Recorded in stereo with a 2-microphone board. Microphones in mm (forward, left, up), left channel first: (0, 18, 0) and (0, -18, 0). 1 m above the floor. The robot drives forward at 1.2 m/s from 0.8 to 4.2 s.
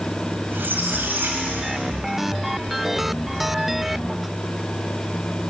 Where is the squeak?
80° right, 2.5 m; by 2.3 s 50° right (ahead or behind), 3 m.